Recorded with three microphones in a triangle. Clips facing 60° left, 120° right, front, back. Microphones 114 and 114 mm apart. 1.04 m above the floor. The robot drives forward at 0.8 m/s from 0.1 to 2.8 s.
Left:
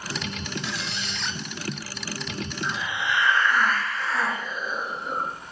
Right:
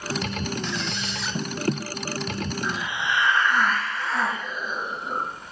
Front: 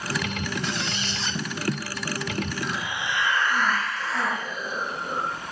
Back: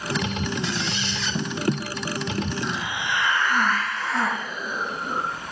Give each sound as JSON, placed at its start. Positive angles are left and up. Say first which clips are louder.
{"t": 0.6, "sound": "a squeak", "louder": "right 3 dB, back 2 dB", "azimuth_deg": -20, "distance_m": 1.2}
{"t": 2.6, "sound": "a hiss", "louder": "left 2 dB, back 2 dB", "azimuth_deg": 180, "distance_m": 4.0}